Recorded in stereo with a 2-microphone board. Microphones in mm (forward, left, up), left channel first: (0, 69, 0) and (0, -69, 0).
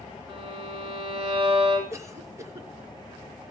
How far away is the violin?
About 5.5 m.